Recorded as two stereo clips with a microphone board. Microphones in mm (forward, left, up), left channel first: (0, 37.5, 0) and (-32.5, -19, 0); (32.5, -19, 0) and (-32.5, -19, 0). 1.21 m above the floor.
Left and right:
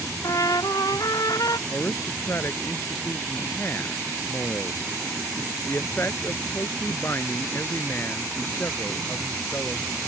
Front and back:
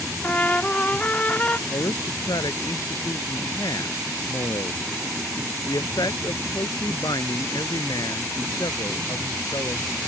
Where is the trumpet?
65° left.